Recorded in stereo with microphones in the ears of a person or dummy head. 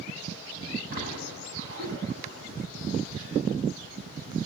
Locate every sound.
0.9 s a splash: 50° right (ahead or behind), 9 m